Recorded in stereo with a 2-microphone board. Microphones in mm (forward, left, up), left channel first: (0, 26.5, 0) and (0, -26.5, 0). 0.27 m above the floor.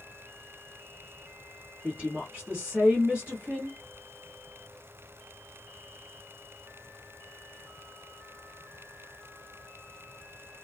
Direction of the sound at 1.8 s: 25° right (ahead or behind).